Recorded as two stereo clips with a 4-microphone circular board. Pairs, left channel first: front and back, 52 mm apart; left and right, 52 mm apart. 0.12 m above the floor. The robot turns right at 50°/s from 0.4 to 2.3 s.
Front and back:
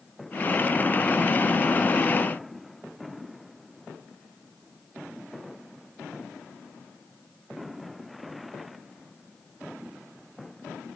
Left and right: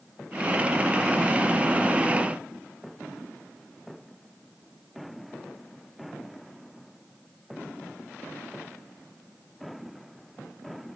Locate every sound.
Only background noise.